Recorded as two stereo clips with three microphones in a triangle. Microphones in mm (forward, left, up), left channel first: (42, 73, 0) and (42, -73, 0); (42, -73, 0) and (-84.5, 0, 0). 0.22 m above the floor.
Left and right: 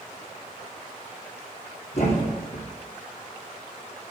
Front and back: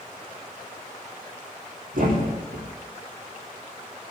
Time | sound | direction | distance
1.9 | a thud | 135° left | 3.5 m